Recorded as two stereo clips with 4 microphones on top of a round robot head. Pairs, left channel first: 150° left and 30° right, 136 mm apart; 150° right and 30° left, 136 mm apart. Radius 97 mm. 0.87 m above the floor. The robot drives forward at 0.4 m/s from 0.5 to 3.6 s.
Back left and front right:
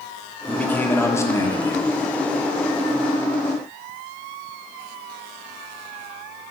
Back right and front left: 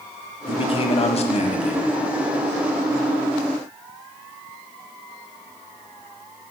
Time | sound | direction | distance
0.5 | a man speaking | 135° right | 1.1 m